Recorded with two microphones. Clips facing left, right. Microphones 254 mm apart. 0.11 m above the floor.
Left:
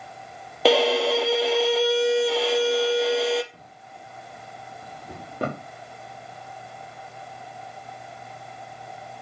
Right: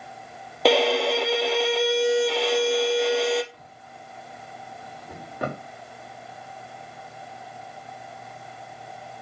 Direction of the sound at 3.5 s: 30° left (ahead or behind).